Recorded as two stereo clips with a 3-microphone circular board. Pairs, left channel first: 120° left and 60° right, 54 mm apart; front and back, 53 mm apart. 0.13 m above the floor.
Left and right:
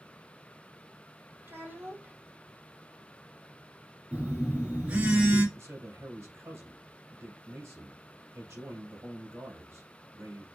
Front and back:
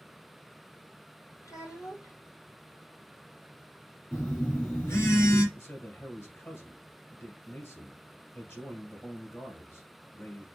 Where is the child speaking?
15° right, 2.5 m.